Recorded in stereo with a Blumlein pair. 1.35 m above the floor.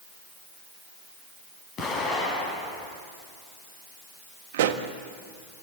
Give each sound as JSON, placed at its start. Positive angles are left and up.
{"t": 1.8, "sound": "an explosion", "azimuth_deg": 30, "distance_m": 7.5}
{"t": 4.5, "sound": "a pop", "azimuth_deg": -55, "distance_m": 1.5}